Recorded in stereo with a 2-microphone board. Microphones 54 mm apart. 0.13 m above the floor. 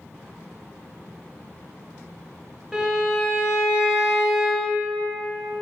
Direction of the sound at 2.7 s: 10° right (ahead or behind).